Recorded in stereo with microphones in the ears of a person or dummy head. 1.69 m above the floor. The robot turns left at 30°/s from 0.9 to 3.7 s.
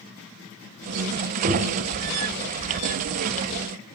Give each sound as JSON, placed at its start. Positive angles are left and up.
{"t": 1.4, "sound": "knocking", "side_deg": -40, "distance_m": 4.5}